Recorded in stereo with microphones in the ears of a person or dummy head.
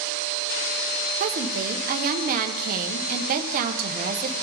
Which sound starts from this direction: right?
A woman speaking, at 1.2 s.